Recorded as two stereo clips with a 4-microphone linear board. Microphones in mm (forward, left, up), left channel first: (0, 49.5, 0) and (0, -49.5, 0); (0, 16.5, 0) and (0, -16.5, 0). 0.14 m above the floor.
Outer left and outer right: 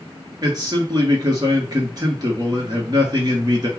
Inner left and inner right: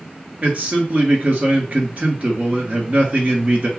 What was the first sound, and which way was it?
A man speaking, 45° right (ahead or behind).